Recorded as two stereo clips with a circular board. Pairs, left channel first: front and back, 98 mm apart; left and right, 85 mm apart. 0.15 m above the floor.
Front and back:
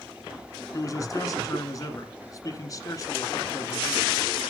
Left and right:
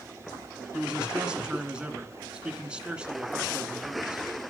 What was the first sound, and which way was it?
A man speaking, 20° right.